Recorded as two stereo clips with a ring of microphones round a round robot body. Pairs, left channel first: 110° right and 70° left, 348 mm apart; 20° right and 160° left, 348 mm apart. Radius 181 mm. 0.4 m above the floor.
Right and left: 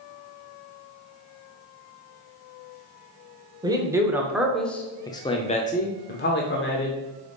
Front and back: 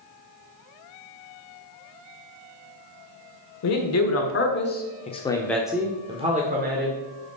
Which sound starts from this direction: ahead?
A man speaking, at 3.6 s.